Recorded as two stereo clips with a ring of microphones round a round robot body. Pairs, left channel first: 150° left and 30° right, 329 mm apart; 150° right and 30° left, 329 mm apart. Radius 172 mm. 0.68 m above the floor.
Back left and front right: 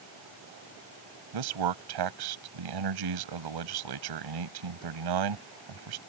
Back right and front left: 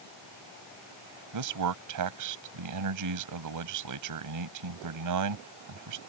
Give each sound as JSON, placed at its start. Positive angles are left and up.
{"t": 1.3, "sound": "a man speaking", "azimuth_deg": -10}